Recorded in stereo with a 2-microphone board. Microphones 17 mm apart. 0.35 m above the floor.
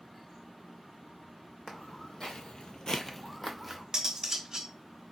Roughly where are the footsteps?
Left.